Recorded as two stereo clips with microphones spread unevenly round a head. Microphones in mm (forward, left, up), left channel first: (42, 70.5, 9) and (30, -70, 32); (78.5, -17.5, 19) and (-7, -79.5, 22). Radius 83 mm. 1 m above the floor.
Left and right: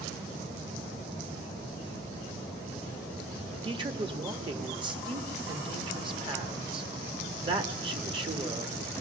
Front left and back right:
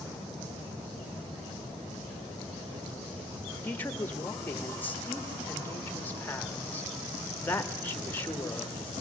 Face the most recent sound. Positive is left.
turn(degrees=-35)